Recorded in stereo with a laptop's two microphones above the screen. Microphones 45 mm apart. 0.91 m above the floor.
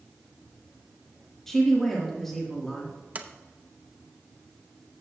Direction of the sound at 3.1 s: 30° right (ahead or behind).